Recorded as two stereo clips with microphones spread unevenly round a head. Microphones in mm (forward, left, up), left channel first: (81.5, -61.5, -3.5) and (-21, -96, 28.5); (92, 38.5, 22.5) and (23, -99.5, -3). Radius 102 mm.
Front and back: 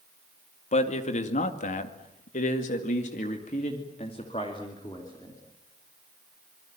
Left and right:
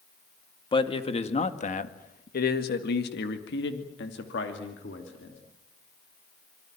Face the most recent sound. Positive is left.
turn(degrees=95)